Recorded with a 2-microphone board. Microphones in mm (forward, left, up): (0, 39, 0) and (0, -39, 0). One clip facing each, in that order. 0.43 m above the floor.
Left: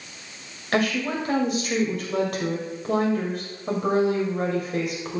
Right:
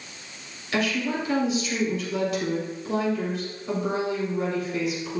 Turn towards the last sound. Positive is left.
turn(degrees=50)  # may be behind; listen again after turning